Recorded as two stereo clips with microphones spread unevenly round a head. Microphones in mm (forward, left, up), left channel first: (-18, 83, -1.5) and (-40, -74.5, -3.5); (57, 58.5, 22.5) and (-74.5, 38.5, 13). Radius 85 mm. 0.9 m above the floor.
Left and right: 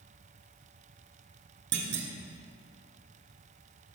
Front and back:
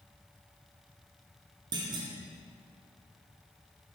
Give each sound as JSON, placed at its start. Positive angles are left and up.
{"t": 1.7, "sound": "a clunk", "azimuth_deg": -105, "distance_m": 1.9}